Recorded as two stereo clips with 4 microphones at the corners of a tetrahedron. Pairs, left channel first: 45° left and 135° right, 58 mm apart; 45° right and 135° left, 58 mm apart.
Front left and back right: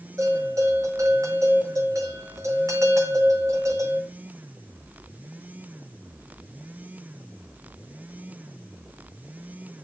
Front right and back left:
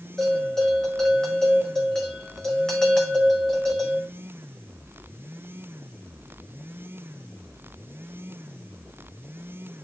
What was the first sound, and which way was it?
A bell, 120° right.